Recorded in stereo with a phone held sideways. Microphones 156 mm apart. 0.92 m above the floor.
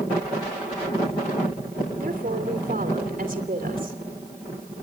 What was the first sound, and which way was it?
A woman speaking, 60° right (ahead or behind).